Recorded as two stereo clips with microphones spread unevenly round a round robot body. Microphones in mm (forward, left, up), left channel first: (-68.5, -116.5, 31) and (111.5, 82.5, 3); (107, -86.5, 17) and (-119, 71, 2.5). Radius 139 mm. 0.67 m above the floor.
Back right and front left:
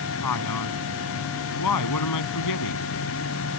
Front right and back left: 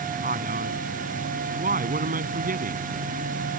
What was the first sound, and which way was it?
A man speaking, 155° right.